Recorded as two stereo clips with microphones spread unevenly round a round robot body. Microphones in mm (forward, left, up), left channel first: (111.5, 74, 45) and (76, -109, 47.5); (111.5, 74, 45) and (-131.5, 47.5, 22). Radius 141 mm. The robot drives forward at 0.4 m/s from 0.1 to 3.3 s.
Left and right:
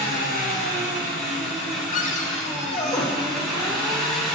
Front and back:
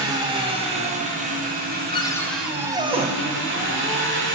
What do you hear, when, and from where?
0.0 s an engine running: 115° left, 1.4 m; by 4.4 s 150° left, 2 m
1.9 s a cupboard door: 75° left, 0.6 m; by 3.1 s 135° left, 0.7 m